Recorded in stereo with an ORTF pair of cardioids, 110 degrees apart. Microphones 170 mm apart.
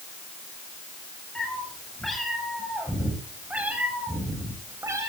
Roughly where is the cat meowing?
Ahead.